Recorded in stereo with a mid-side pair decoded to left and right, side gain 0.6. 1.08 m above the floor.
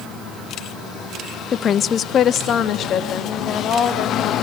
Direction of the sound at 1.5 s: 40° left.